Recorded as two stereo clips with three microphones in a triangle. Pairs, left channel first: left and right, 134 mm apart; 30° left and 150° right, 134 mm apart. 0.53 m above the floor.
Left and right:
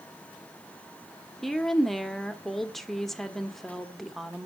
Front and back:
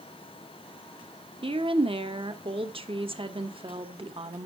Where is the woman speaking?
175° left, 1.2 m.